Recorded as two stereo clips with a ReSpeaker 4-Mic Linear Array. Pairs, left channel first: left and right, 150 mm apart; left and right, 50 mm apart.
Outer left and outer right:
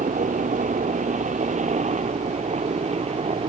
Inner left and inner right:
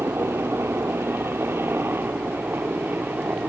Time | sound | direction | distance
0.0 | a helicopter | 55° right (ahead or behind) | ?